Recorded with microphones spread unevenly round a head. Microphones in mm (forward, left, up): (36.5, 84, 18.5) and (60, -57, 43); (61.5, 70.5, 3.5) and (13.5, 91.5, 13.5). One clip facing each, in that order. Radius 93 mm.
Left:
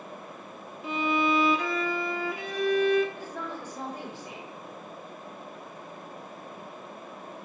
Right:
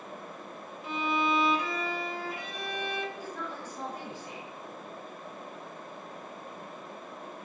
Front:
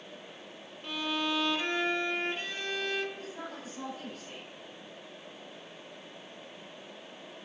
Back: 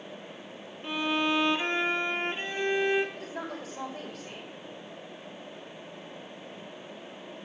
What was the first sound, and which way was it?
A violin, 90° left.